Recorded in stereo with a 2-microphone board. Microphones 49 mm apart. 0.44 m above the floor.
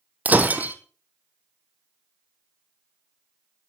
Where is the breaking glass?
35° right (ahead or behind), 2 m.